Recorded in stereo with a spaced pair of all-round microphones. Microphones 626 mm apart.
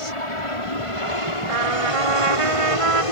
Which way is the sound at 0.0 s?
60° left (ahead or behind).